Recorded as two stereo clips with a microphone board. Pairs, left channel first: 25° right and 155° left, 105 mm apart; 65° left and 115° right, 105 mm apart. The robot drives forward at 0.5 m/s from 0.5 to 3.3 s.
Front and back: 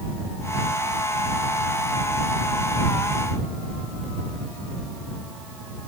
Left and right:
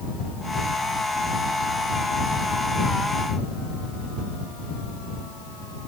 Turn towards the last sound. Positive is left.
No sound to turn to.